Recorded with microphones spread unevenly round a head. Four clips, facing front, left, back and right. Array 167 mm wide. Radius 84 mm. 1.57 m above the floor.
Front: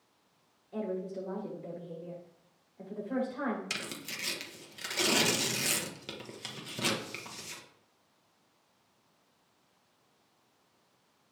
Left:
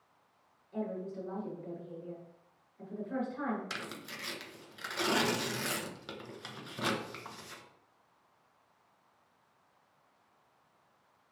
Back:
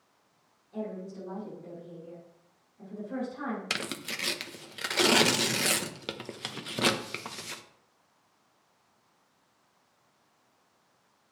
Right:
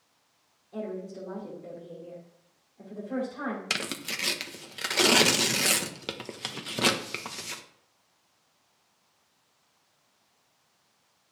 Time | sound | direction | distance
0.7 | a woman speaking | 10° right | 6 m
3.7 | tearing paper | 130° right | 1.0 m